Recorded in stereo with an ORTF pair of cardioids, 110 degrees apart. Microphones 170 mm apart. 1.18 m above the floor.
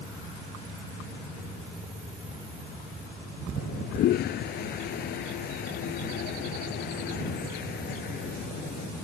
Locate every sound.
3.6 s a toilet flushing: 70° left